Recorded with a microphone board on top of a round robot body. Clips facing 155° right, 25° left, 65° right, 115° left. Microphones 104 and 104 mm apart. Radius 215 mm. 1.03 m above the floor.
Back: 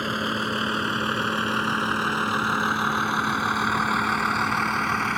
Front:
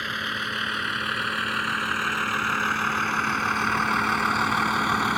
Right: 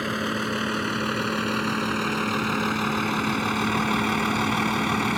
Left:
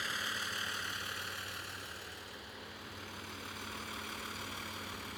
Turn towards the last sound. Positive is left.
turn(degrees=-60)